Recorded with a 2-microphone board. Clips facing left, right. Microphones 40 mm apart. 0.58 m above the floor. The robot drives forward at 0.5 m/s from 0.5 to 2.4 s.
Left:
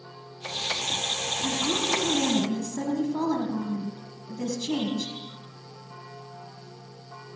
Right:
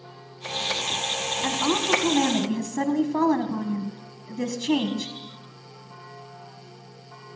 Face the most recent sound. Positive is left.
turn(degrees=-55)  # may be behind; listen again after turning